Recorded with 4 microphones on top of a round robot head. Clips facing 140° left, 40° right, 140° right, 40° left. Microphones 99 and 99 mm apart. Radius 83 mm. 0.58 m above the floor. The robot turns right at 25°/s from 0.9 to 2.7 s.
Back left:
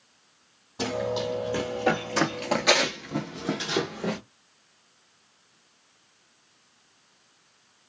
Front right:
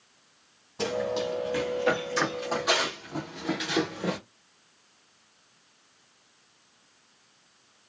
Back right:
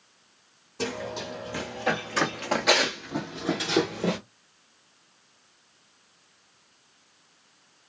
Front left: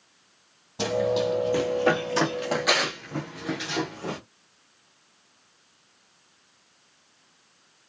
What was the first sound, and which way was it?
Running footsteps, 60° left.